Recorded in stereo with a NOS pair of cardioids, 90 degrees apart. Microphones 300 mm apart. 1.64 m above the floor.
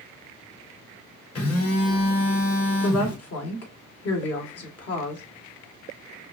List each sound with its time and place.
1.4 s a phone buzzing: 50° left, 3 m
2.8 s a woman speaking: 55° left, 2 m